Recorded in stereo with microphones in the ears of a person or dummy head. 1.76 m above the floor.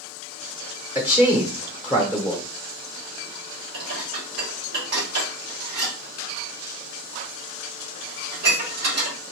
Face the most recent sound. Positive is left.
turn(degrees=-60)  # may be behind; listen again after turning